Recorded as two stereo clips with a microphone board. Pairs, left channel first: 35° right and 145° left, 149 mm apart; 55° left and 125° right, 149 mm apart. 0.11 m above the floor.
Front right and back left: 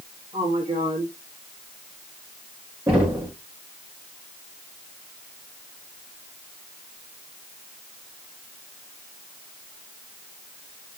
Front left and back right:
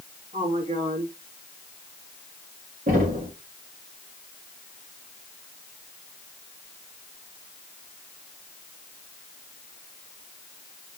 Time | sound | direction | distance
0.3 | a woman speaking | 165° right | 5 m
2.9 | knocking | 140° right | 4.5 m